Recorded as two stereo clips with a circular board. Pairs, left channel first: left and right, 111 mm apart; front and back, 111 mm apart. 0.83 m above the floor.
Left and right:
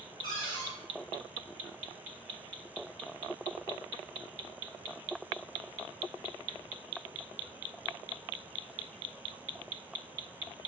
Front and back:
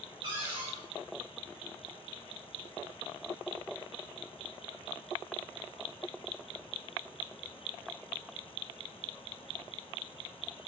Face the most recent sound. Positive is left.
turn(degrees=135)